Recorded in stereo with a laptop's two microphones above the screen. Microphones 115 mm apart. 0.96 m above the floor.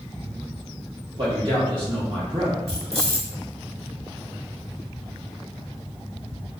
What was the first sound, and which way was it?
A man speaking, 45° right (ahead or behind).